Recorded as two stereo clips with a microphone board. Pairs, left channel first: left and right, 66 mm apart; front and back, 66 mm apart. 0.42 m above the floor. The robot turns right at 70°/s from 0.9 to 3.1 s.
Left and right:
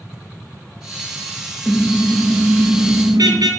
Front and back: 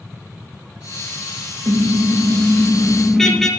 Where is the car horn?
175° left, 4 m; by 3.5 s 85° right, 4 m.